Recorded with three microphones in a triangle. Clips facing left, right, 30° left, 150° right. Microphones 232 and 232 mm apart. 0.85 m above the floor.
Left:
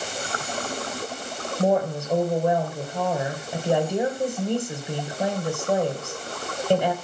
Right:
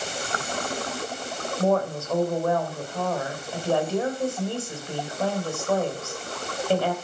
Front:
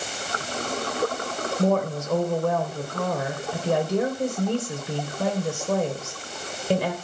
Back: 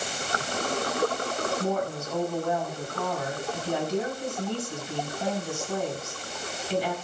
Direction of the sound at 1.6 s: 15° left.